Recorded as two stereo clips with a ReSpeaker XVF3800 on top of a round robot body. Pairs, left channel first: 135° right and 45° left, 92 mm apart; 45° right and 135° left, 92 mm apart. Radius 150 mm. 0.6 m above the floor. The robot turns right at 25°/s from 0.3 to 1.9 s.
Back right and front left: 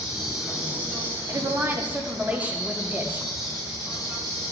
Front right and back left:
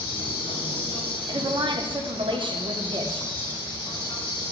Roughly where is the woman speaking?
Left.